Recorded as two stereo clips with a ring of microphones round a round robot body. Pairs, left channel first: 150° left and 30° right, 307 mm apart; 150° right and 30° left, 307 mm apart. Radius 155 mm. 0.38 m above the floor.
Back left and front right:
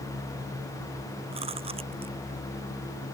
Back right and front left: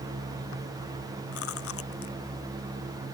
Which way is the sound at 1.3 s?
105° right.